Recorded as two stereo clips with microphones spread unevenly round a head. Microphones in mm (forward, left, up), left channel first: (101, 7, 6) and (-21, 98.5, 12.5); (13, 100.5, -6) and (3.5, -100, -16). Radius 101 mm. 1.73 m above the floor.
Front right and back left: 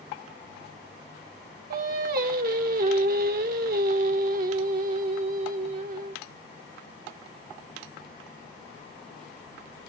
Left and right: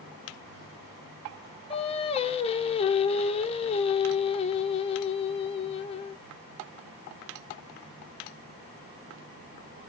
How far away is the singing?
About 0.6 m.